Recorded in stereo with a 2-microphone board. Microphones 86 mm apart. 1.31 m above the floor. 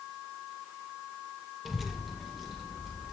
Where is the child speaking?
Centre (ahead or behind), 0.5 m; by 3.1 s 5° right (ahead or behind), 1.9 m.